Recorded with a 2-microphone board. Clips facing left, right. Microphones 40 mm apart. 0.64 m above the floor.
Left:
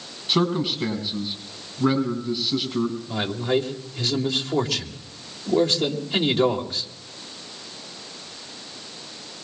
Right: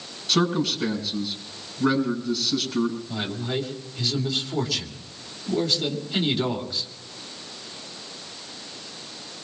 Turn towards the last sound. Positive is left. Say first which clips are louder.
# left 5 dB
turn(degrees=65)  # may be behind; listen again after turning